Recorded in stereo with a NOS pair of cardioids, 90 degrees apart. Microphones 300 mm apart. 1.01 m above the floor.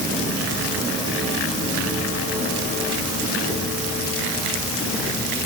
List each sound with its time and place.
Only background noise.